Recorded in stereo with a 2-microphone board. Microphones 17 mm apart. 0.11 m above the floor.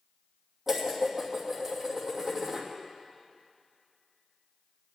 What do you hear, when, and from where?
0.7 s dishes clattering: 20° right (ahead or behind), 2.5 m